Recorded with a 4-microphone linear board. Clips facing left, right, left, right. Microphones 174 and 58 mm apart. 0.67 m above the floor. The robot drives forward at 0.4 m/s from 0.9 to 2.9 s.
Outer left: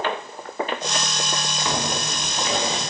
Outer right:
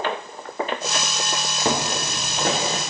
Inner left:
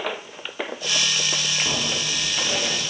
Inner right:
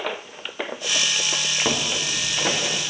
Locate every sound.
1.6 s footsteps: 40° right (ahead or behind), 3 m; by 2.8 s 55° right (ahead or behind), 3.5 m